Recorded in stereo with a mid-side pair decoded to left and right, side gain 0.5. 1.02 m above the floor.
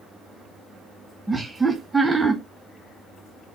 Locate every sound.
1.3 s laughter: 10° right, 0.8 m